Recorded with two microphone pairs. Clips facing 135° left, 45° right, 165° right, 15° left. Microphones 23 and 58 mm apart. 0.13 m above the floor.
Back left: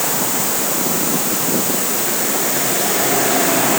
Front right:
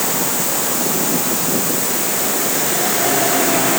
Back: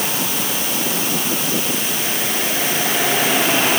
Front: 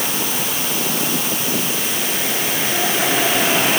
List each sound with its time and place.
Only background noise.